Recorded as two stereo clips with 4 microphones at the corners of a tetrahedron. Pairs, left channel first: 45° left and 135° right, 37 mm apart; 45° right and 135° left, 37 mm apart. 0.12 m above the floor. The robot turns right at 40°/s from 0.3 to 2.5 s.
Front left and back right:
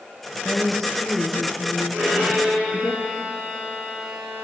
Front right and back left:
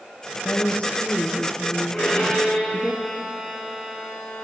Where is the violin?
110° right, 4 m; by 4.4 s 90° right, 4 m.